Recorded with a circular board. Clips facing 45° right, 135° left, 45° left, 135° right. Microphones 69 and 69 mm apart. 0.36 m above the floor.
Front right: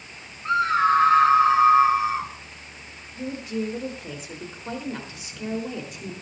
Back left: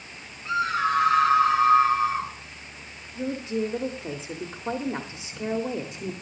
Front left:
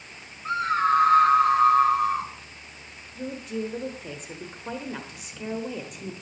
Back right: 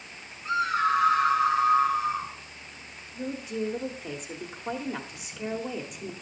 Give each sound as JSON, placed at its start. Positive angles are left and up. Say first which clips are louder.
{"t": 0.5, "sound": "a scream", "louder": "front right 5 dB, front left 2 dB", "azimuth_deg": -5, "distance_m": 4.0}
{"t": 3.1, "sound": "a woman speaking", "louder": "back left 2 dB, even", "azimuth_deg": 140, "distance_m": 1.2}